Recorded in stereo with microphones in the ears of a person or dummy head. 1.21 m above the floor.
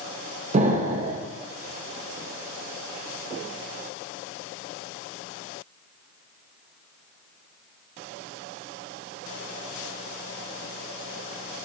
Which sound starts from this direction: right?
An explosion, at 0.5 s.